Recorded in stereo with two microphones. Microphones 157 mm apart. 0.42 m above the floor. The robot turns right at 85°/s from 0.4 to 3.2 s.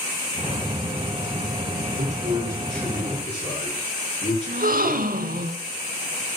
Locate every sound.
2.0 s a man speaking: 60° right, 6 m; by 5.5 s 45° left, 6 m
4.5 s a gasp: 65° right (ahead or behind), 0.7 m